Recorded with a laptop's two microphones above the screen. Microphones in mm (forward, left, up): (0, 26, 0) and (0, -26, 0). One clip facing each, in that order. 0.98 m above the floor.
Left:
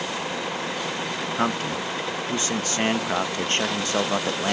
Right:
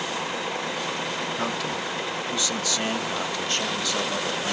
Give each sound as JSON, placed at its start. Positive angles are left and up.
{"t": 1.4, "sound": "a man speaking", "side_deg": 40, "distance_m": 1.1}